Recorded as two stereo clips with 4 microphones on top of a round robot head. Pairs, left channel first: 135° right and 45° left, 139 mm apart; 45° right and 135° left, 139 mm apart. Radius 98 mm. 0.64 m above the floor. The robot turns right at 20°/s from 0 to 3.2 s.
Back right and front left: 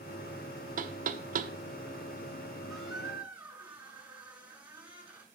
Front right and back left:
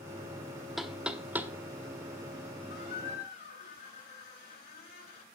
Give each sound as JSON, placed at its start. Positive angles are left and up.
{"t": 0.8, "sound": "knocking", "azimuth_deg": 45, "distance_m": 0.9}
{"t": 2.7, "sound": "a squeak", "azimuth_deg": -40, "distance_m": 5.0}